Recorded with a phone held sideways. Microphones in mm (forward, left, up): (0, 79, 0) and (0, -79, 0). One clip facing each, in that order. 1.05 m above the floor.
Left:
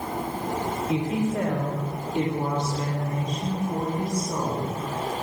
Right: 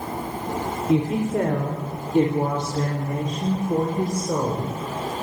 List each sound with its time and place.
0.9 s a woman speaking: 45° right (ahead or behind), 3.5 m; by 5.2 s 85° right, 4.5 m